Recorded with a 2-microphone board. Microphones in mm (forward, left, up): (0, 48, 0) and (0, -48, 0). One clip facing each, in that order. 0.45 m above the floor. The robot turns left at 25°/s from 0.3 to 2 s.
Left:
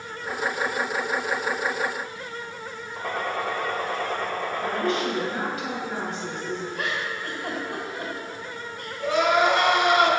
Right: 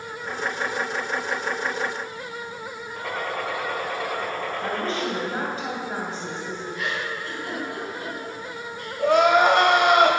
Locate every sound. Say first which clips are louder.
3.0 s a gunshot: left 1 dB; 15° left (ahead or behind), 1.8 m
4.6 s a woman speaking: left 2 dB; 35° right (ahead or behind), 2.5 m
6.8 s a giggle: even; 55° left (ahead or behind), 2 m
9.0 s crying: right 4 dB; 55° right (ahead or behind), 0.8 m